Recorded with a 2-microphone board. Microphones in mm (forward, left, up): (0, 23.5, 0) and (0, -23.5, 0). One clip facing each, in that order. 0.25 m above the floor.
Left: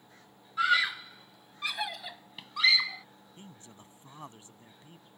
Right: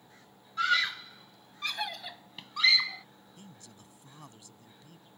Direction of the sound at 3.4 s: 30° left (ahead or behind).